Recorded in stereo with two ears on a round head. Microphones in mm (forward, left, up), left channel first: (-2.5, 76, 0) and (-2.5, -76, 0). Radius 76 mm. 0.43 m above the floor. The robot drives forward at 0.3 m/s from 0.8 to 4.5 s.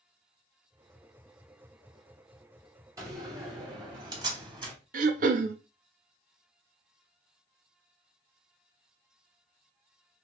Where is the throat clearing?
50° right (ahead or behind), 0.5 m.